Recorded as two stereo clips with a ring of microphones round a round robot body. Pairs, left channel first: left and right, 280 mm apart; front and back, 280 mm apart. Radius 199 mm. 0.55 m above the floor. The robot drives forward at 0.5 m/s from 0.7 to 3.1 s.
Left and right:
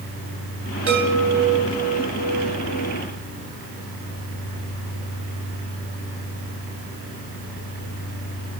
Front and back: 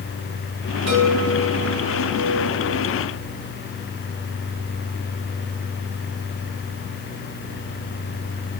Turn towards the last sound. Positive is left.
turn(degrees=-135)